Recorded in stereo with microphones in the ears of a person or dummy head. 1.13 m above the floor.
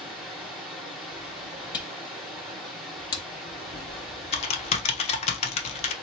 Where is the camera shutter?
30° left (ahead or behind), 0.7 m.